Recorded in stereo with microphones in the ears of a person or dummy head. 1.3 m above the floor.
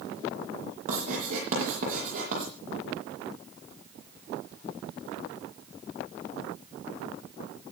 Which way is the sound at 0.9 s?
45° right (ahead or behind).